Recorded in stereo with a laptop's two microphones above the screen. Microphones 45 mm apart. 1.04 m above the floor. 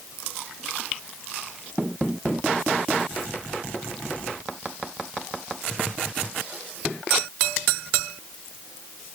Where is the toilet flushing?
I don't hear a toilet flushing.